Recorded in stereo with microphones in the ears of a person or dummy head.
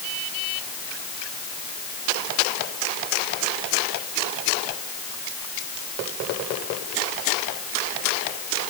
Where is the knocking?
No knocking in this recording.